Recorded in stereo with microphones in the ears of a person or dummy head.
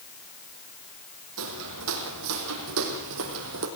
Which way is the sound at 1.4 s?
75° right (ahead or behind).